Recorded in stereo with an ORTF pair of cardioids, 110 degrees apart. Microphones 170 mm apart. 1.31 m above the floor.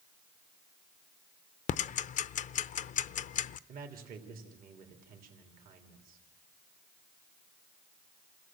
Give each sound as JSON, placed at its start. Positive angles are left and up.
{"t": 1.7, "sound": "ticking", "azimuth_deg": 50, "distance_m": 0.6}
{"t": 3.7, "sound": "a man speaking", "azimuth_deg": -60, "distance_m": 3.0}